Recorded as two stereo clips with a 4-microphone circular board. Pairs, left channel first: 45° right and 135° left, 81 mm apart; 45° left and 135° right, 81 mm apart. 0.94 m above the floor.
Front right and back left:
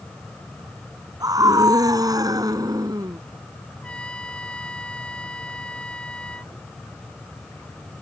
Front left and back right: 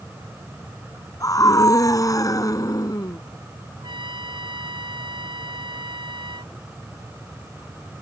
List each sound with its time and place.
1.2 s a scream: 90° left
3.8 s a trumpet: 120° right